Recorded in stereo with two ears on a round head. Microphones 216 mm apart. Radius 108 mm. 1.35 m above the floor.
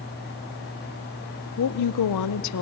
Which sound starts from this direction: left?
A woman speaking, at 1.6 s.